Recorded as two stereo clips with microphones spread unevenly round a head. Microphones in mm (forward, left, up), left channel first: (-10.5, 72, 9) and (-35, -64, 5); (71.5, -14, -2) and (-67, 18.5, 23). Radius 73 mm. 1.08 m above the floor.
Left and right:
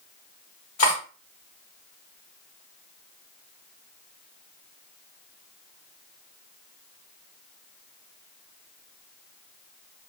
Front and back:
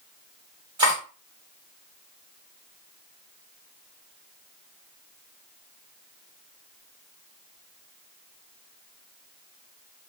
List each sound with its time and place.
0.8 s cutlery clinking: 110° left, 1.8 m